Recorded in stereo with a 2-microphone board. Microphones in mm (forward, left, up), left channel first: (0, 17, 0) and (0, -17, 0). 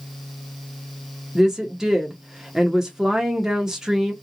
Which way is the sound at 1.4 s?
20° right (ahead or behind).